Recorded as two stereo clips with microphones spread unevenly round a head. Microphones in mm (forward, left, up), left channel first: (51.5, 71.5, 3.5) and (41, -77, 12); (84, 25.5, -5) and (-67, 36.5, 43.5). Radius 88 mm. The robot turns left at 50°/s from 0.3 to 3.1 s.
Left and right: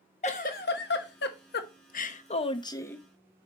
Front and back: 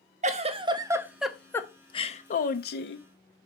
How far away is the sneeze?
I don't hear a sneeze.